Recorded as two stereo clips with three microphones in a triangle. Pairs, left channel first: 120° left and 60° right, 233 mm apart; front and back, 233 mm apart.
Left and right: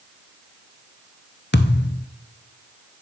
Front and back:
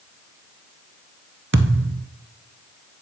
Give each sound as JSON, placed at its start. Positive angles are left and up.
{"t": 1.5, "sound": "a thud", "azimuth_deg": 155, "distance_m": 0.7}